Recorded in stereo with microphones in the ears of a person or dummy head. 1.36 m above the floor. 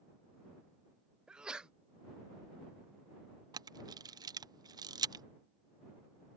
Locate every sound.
1.3 s a sneeze: 5° right (ahead or behind)
3.5 s a camera shutter: 20° right (ahead or behind)